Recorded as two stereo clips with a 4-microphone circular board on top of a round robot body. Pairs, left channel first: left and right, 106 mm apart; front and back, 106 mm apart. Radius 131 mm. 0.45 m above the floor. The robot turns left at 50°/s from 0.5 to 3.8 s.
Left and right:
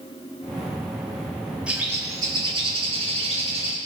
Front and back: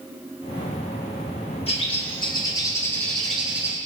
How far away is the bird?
About 3 m.